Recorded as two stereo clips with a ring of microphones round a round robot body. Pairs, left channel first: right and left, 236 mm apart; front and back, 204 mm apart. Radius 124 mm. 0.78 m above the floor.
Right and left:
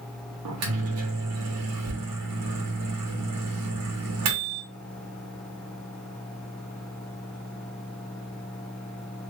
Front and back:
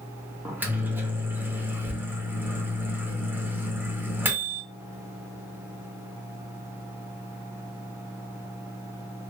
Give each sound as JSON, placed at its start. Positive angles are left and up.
{"t": 0.5, "sound": "a microwave", "azimuth_deg": 100, "distance_m": 0.7}